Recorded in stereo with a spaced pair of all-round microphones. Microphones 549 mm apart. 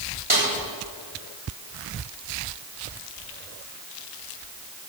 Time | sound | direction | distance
0.3 | a snare drum | 60° right (ahead or behind) | 4 m